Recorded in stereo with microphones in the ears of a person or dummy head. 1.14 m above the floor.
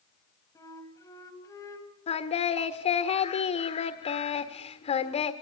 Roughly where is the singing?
Left.